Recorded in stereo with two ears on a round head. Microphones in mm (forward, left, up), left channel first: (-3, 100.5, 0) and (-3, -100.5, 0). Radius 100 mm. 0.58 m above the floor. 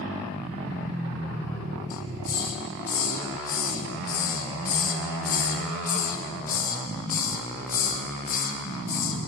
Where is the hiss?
40° left (ahead or behind), 0.9 m.